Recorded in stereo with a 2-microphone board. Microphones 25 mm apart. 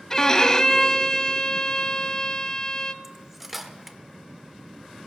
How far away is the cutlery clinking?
About 1.0 m.